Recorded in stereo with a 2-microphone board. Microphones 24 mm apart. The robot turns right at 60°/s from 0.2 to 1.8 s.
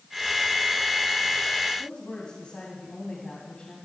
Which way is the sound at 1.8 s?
55° left (ahead or behind).